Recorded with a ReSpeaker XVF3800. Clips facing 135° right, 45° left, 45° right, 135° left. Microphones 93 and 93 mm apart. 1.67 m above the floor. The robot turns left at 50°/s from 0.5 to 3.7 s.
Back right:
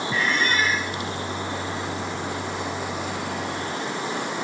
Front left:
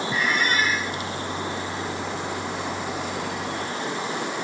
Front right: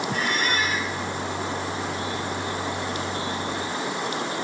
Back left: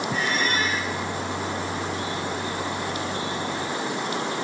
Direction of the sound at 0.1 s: 25° right.